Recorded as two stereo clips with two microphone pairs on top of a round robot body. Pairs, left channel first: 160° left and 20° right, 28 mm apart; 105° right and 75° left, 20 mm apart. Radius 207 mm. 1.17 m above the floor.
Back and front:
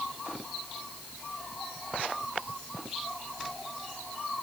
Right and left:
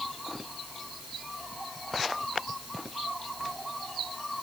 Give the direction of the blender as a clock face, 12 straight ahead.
I don't hear a blender.